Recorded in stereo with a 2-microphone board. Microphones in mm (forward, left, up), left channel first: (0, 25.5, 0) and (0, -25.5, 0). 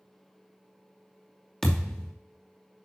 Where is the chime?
No chime in this recording.